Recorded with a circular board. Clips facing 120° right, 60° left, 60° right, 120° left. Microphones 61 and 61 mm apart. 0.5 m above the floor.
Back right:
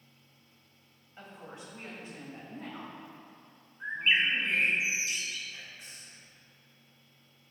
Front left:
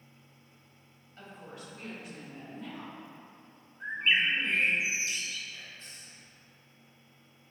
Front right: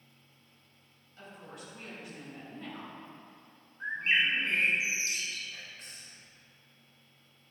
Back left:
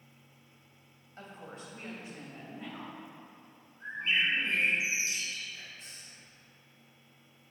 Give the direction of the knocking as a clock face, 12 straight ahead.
No knocking in this recording.